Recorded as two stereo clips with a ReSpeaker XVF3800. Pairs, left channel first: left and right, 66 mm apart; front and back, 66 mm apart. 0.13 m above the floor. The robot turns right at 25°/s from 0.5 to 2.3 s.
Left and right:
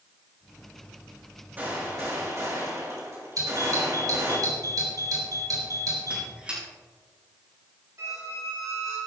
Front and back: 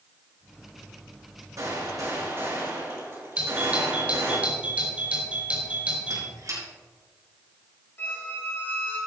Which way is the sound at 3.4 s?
110° right.